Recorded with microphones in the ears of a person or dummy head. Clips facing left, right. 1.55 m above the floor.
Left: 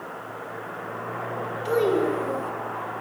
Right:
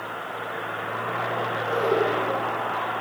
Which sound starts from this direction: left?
A child speaking, at 1.6 s.